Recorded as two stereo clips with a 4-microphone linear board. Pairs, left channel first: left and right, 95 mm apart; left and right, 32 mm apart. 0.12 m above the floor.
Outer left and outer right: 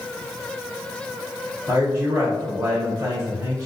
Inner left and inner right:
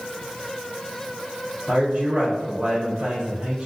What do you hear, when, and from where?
1.7 s a man speaking: 30° right (ahead or behind), 1.9 m